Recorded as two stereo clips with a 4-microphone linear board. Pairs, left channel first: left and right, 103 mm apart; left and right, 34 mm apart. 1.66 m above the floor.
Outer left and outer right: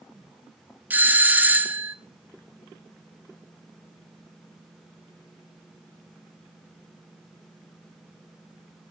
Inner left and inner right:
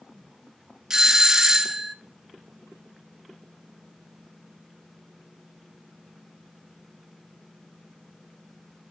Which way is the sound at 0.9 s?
15° right (ahead or behind).